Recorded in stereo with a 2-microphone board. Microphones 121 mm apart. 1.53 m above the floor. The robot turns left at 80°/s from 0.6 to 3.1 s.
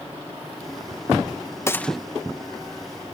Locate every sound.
1.7 s a gunshot: 25° left (ahead or behind); by 2.0 s centre (ahead or behind)